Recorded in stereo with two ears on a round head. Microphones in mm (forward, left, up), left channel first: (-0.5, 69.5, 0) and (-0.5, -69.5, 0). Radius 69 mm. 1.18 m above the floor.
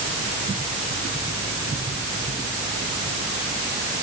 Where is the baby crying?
I don't hear a baby crying.